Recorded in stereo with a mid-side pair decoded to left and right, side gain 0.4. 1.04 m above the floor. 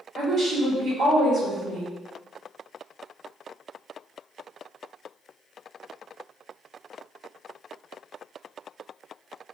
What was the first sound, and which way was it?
A woman speaking, 65° right.